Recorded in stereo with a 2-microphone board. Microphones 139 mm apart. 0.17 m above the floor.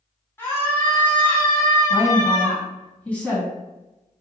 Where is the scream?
15° left (ahead or behind), 1.2 m.